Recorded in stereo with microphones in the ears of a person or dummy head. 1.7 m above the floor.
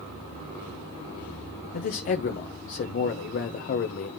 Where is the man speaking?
40° left (ahead or behind), 0.6 m.